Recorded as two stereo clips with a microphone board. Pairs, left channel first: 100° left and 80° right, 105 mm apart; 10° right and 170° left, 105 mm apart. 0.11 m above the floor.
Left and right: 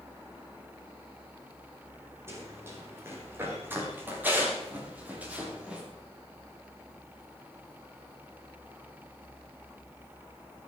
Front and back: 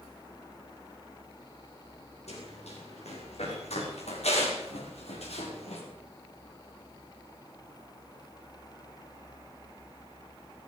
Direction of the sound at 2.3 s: 15° right.